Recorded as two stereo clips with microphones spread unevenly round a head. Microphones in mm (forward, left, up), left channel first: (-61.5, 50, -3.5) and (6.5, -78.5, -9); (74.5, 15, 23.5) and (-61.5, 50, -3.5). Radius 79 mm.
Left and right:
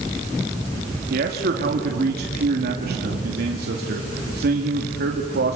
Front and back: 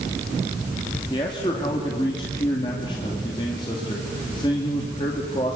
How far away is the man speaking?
About 2.5 m.